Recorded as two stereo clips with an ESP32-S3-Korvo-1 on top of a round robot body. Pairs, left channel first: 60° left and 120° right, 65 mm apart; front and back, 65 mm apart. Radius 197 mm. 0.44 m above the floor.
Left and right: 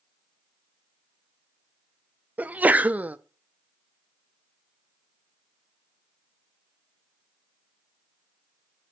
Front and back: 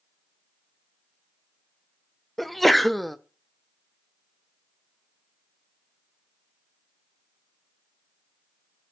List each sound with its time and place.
2.4 s a sneeze: 85° right, 0.9 m